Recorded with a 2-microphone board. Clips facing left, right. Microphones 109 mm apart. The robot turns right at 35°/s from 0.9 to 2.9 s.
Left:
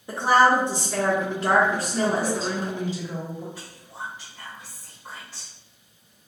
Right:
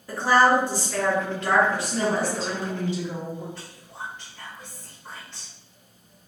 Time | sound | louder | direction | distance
0.1 | a woman speaking | left 1 dB | 25° left | 0.7 m
1.7 | a woman speaking | left 1 dB | 105° right | 1.6 m
3.5 | whispering | left 1 dB | 10° left (ahead or behind) | 0.8 m